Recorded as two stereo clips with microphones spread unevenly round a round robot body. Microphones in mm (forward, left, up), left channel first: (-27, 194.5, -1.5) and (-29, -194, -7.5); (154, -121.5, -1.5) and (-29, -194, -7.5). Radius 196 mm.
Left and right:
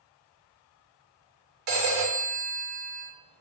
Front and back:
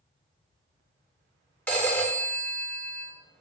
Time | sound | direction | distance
1.7 | a phone ringing | 60° right | 1.1 m